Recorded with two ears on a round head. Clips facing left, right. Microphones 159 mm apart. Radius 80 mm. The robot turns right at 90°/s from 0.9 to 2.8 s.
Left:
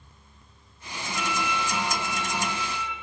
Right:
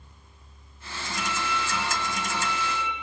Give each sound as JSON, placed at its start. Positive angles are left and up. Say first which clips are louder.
{"t": 1.2, "sound": "a violin", "louder": "left 2 dB", "azimuth_deg": 95, "distance_m": 1.2}